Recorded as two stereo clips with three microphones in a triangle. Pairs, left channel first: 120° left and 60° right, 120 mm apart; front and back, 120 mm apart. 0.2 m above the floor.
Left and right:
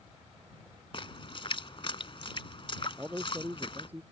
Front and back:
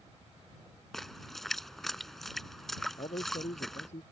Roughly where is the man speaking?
Ahead.